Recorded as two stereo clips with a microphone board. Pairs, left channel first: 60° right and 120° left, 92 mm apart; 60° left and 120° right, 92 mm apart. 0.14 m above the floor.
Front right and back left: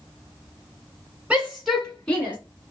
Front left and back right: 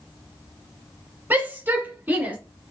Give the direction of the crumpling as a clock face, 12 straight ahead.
No crumpling in this recording.